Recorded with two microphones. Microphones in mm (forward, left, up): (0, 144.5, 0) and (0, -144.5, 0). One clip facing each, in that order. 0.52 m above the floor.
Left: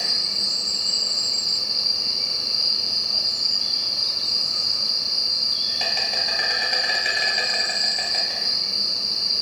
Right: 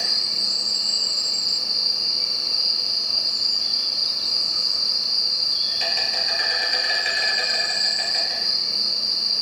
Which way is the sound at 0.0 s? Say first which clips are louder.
Left 1 dB; 65° left (ahead or behind).